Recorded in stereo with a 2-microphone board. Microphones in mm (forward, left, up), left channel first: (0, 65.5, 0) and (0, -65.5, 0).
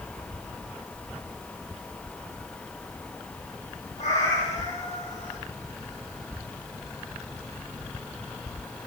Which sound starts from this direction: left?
A cat meowing, at 4.0 s.